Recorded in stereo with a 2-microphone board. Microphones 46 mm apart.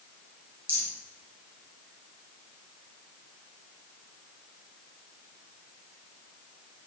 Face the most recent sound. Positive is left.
turn(degrees=-55)  # may be behind; listen again after turning